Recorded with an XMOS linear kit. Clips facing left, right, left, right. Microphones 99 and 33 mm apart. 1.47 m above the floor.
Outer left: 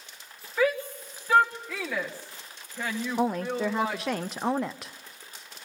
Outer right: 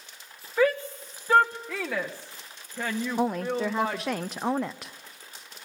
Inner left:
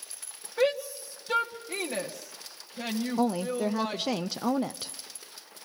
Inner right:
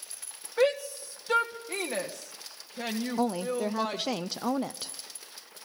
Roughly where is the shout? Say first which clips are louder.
Outer right 2 dB, inner right 1 dB; centre.